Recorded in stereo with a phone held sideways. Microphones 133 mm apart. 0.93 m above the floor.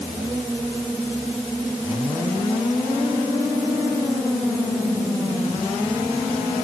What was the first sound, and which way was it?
Only background noise.